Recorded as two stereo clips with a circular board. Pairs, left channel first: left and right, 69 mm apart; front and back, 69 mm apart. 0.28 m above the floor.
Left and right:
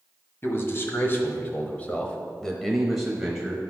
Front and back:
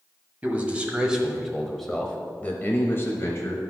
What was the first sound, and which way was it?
A man speaking, 125° left.